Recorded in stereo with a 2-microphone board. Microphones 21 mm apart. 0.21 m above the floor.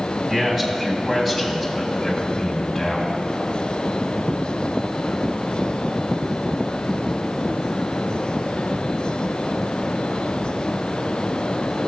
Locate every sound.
0.3 s a man speaking: 25° right (ahead or behind), 1.7 m; by 3.1 s 15° left (ahead or behind), 1.7 m